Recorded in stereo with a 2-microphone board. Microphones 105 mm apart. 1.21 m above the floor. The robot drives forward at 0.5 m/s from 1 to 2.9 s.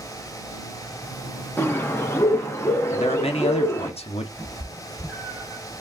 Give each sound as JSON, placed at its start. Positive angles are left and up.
{"t": 1.6, "sound": "a bird", "side_deg": 20, "distance_m": 0.8}
{"t": 2.9, "sound": "a man speaking", "side_deg": 70, "distance_m": 0.6}
{"t": 4.4, "sound": "a cat meowing", "side_deg": -10, "distance_m": 1.8}